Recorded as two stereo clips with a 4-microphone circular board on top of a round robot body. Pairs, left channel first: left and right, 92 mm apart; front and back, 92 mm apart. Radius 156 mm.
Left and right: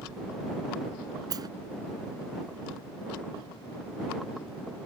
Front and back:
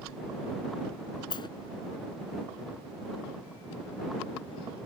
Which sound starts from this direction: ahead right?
A sliding door, at 1.3 s.